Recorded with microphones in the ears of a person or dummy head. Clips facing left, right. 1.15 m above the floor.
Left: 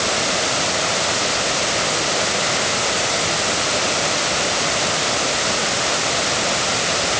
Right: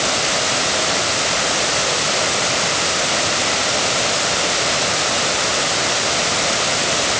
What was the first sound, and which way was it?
Only background noise.